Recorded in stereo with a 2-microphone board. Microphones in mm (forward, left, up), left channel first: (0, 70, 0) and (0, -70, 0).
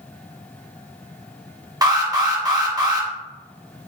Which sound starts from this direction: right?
An alarm, at 1.8 s.